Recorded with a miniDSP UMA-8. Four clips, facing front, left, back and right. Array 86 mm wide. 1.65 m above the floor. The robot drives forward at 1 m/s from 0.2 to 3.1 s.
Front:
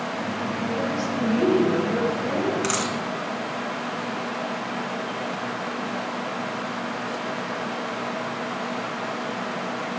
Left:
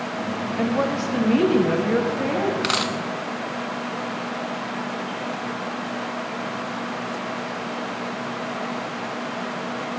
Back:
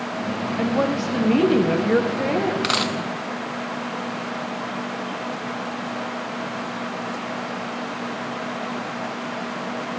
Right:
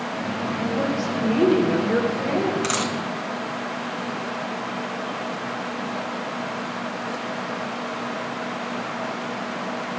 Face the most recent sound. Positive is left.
turn(degrees=160)